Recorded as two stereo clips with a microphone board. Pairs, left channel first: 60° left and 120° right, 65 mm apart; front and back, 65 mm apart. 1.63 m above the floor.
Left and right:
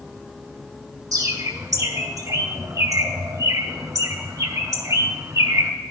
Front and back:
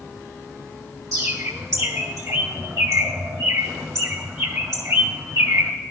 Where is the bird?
145° right, 1.6 m.